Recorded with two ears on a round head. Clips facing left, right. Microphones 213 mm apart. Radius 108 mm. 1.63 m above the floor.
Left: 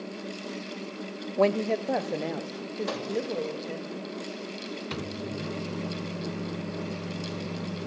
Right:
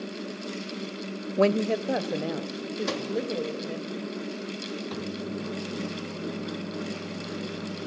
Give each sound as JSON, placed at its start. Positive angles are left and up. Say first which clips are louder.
{"t": 1.4, "sound": "a woman speaking", "louder": "right 1 dB", "side_deg": -15, "distance_m": 0.5}
{"t": 2.9, "sound": "a microwave", "louder": "right 2 dB", "side_deg": -40, "distance_m": 3.0}
{"t": 4.9, "sound": "a microwave", "louder": "even", "side_deg": 35, "distance_m": 0.8}